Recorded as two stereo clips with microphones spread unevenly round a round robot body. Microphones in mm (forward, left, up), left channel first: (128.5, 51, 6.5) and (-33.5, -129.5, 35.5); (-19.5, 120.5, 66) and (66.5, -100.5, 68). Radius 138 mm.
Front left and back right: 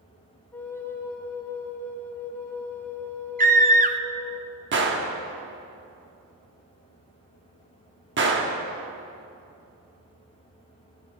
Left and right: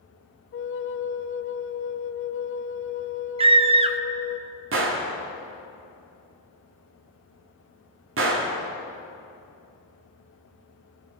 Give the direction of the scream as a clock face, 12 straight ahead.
4 o'clock.